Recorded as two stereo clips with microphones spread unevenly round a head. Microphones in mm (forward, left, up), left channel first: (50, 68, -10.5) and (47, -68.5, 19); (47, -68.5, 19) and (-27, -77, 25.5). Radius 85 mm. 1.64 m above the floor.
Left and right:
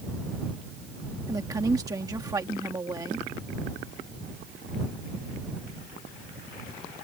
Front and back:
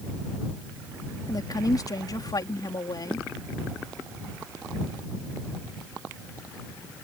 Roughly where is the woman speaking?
Ahead right.